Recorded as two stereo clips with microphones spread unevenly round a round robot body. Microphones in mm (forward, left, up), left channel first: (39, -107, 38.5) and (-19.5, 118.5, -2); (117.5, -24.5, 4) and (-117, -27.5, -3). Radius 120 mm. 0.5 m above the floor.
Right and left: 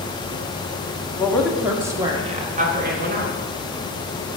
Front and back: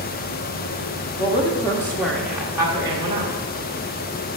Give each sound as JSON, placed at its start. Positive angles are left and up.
{"t": 1.2, "sound": "a woman speaking", "azimuth_deg": 10, "distance_m": 1.0}